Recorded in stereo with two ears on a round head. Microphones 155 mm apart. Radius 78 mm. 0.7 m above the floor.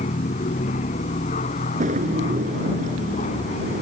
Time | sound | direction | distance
0.0 | an aircraft | 40° left (ahead or behind) | ?
1.8 | a drawer | 45° right (ahead or behind) | ?